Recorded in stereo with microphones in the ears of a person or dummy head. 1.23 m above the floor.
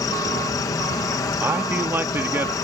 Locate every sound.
0.0 s an insect: 15° left (ahead or behind)
1.4 s a man speaking: 10° right (ahead or behind)